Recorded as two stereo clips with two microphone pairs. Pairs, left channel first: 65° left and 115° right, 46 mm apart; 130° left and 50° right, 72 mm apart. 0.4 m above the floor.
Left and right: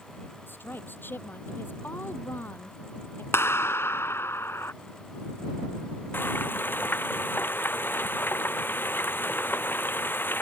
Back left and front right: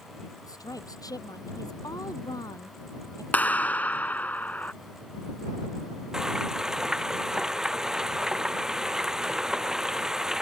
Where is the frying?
30° left.